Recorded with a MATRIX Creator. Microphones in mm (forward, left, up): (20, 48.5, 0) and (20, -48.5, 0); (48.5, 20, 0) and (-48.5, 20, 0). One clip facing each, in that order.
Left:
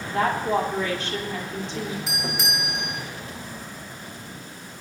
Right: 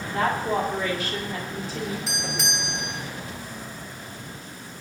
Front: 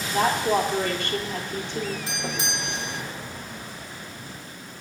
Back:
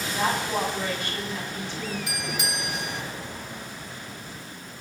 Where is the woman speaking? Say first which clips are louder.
Left 2 dB, front 5 dB; 5° right, 6.5 m.